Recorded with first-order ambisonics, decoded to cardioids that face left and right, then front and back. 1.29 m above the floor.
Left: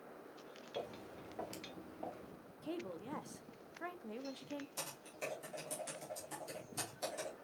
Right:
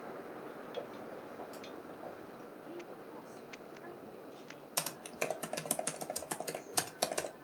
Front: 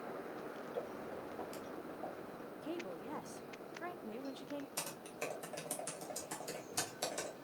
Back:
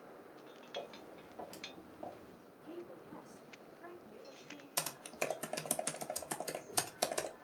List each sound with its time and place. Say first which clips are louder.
0.8 s footsteps: even, front 1 dB; 80° left, 1.9 m; by 2.4 s 175° left, 1.3 m
2.6 s a woman speaking: left 6 dB, front 5 dB; 45° left, 0.6 m
4.8 s typing on a keyboard: right 8 dB, back 9 dB; 120° right, 0.6 m